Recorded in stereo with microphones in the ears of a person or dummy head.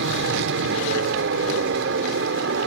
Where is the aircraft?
70° right (ahead or behind).